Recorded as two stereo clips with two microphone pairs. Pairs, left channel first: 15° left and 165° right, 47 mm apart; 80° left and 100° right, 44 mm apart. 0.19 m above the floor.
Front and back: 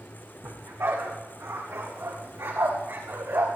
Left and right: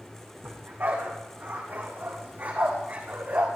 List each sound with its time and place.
0.4 s a dog barking: 135° right, 4 m; by 3.5 s 145° right, 5.5 m